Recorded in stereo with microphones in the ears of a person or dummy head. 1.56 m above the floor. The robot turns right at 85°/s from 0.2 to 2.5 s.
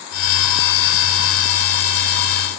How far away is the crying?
No crying in this recording.